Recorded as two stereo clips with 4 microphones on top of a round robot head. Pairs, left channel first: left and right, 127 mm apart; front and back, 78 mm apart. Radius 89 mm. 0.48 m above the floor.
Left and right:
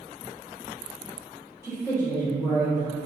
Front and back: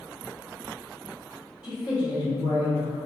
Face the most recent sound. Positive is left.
turn(degrees=-120)